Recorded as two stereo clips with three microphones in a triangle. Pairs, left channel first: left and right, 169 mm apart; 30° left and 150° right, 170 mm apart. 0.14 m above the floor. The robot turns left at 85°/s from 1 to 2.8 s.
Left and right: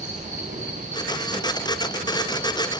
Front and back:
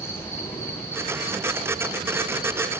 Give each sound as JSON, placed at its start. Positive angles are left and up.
{"t": 0.0, "sound": "an insect", "azimuth_deg": -45, "distance_m": 9.0}